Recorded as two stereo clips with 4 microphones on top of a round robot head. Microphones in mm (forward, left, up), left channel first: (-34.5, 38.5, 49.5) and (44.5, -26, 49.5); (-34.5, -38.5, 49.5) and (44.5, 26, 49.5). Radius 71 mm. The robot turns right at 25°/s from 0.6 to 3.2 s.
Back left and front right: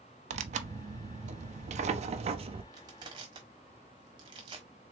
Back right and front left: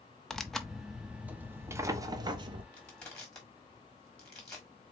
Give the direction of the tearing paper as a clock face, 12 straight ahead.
2 o'clock.